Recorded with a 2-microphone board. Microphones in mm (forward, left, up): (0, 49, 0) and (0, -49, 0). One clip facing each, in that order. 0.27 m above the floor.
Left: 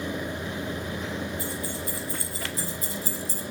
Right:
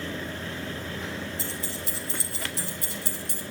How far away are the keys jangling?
About 5 m.